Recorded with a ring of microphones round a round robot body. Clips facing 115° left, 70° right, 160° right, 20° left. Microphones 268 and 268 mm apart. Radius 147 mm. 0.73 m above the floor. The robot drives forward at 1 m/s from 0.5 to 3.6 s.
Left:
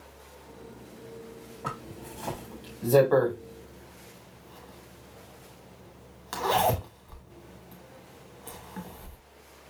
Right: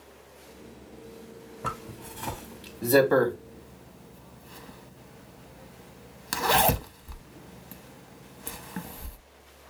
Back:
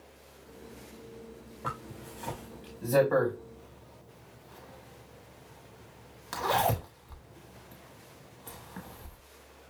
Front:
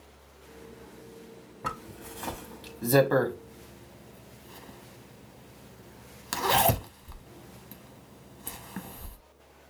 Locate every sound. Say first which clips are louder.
1.6 s a zipper: even, front 2 dB; 5° right, 2.5 m; by 9.2 s 20° right, 0.9 m